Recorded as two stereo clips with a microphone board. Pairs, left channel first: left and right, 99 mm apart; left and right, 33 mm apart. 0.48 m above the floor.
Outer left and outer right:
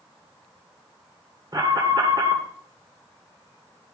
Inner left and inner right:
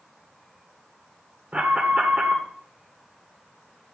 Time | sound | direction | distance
1.5 | an alarm | 45° right (ahead or behind) | 1.8 m